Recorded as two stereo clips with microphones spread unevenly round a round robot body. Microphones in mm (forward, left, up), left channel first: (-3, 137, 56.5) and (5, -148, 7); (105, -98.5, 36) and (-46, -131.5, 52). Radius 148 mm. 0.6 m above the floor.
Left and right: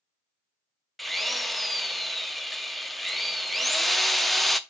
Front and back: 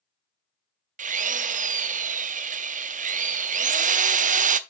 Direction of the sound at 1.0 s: 170° right.